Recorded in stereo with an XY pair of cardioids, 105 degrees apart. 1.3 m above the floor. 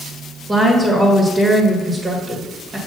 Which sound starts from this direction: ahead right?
A woman speaking, at 0.5 s.